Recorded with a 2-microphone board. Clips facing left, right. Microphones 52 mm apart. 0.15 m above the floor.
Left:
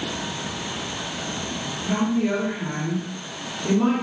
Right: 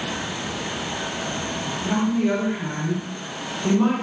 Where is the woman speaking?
20° right (ahead or behind), 1.6 m.